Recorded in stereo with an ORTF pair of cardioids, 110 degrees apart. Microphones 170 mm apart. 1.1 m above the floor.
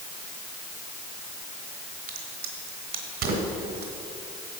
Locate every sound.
2.1 s a crack: 70° right, 2.5 m